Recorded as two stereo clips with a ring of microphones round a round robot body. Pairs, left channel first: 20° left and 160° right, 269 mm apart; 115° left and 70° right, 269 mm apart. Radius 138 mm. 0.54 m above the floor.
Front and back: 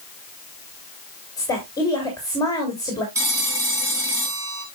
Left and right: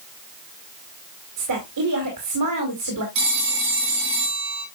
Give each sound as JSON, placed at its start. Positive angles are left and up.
{"t": 1.4, "sound": "a woman speaking", "azimuth_deg": -55, "distance_m": 3.0}
{"t": 3.1, "sound": "a phone ringing", "azimuth_deg": -80, "distance_m": 4.5}